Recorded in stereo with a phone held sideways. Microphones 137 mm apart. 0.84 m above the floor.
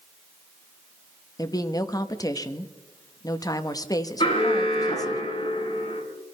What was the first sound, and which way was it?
A woman speaking, 25° left (ahead or behind).